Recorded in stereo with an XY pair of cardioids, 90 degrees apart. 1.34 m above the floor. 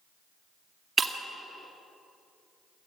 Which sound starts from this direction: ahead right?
Breaking glass, at 1.0 s.